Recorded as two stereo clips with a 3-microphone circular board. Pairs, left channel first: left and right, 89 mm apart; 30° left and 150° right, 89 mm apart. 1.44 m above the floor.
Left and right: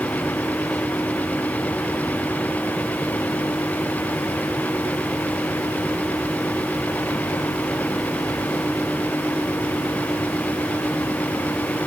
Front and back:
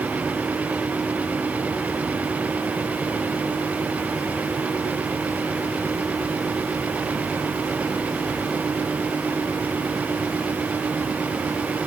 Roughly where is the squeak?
I don't hear a squeak.